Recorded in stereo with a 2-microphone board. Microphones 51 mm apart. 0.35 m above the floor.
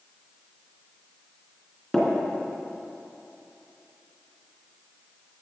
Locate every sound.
1.9 s tapping: 5° left (ahead or behind), 3 m